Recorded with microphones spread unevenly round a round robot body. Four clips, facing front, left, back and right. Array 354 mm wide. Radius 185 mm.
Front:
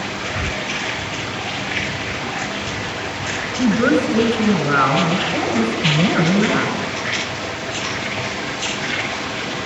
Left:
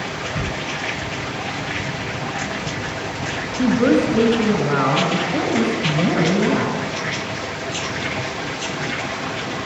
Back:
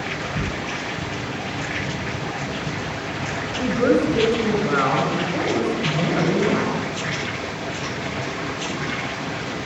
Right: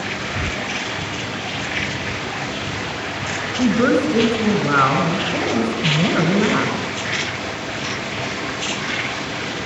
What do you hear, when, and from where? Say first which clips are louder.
3.6 s a woman speaking: left 1 dB, front 2 dB; 70° right, 9 m